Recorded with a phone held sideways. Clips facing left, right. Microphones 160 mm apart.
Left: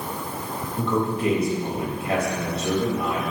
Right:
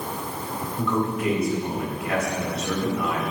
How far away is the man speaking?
About 5.5 m.